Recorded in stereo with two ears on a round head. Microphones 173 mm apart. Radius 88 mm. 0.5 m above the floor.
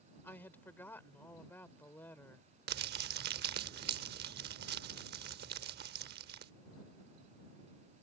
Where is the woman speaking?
10° left (ahead or behind).